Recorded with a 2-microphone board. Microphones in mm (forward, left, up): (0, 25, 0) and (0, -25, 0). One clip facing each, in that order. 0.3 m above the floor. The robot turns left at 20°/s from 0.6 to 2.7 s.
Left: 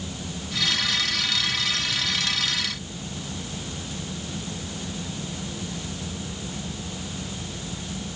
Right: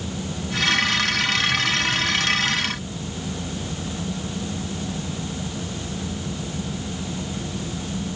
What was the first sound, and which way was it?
Only background noise.